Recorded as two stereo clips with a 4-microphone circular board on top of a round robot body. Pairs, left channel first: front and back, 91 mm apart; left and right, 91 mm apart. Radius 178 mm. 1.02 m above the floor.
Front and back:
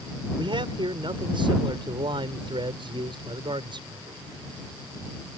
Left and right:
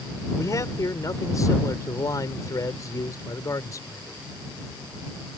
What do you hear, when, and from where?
0.4 s a man speaking: 145° left